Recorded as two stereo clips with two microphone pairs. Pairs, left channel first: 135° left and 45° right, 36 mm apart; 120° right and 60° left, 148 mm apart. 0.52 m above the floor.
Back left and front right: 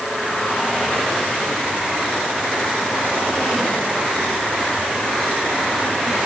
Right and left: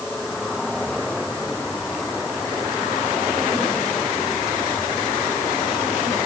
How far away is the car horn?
I don't hear a car horn.